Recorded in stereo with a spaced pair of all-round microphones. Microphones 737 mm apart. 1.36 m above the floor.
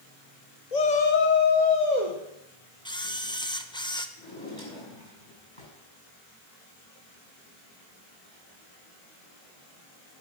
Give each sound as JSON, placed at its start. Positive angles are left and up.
{"t": 0.7, "sound": "a shout", "side_deg": 60, "distance_m": 1.0}
{"t": 2.9, "sound": "a camera shutter", "side_deg": 5, "distance_m": 0.7}
{"t": 4.2, "sound": "a drawer", "side_deg": 35, "distance_m": 6.0}